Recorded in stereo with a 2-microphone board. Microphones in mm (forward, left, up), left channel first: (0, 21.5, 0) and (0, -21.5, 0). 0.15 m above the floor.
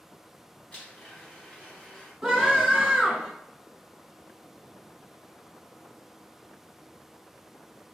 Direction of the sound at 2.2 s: 5° right (ahead or behind).